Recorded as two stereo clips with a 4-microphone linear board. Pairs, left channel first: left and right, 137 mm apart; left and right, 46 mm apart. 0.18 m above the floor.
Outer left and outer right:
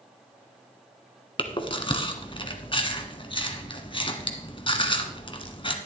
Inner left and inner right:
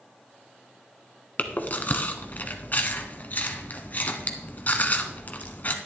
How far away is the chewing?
About 1.0 m.